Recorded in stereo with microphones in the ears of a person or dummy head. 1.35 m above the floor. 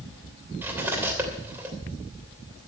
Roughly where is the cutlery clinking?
Centre.